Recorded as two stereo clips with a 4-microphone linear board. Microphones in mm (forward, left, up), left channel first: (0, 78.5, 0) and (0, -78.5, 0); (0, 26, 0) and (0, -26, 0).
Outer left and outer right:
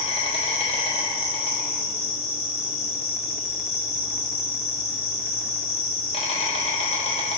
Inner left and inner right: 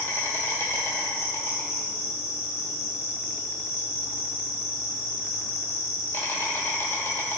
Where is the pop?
No pop in this recording.